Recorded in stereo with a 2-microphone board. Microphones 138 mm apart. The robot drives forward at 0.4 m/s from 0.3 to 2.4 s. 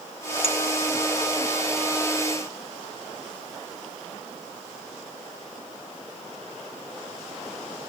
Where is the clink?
50° left (ahead or behind), 1.5 m.